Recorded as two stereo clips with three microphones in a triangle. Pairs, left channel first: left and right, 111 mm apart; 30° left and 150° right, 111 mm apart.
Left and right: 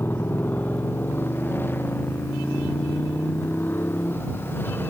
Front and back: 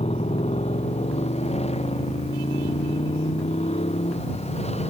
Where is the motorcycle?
20° left.